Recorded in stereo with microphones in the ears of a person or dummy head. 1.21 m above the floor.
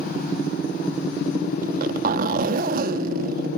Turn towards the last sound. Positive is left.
turn(degrees=-50)  # may be behind; listen again after turning